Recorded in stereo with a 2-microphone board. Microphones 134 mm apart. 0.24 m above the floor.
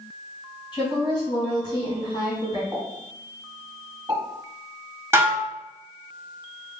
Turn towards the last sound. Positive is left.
turn(degrees=-20)  # may be behind; listen again after turning